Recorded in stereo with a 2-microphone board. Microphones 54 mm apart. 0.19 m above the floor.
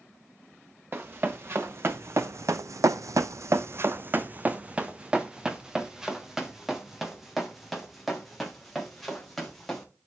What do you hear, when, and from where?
0.9 s running footsteps: 40° right (ahead or behind), 1.7 m; by 9.8 s 5° left (ahead or behind), 4.5 m